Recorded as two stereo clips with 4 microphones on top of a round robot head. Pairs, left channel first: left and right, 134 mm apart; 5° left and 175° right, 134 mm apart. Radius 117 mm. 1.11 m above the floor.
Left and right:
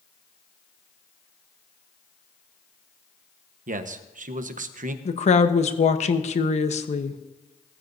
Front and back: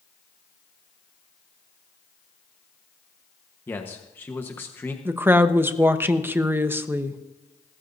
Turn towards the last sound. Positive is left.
turn(degrees=115)